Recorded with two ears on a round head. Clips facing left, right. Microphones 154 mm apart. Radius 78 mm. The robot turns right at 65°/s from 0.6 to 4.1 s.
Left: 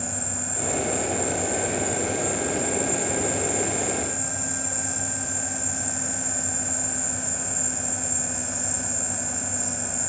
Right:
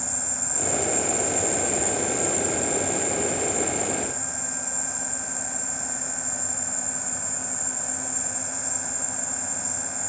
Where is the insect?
140° right, 1.2 m; by 10.1 s 85° left, 1.2 m.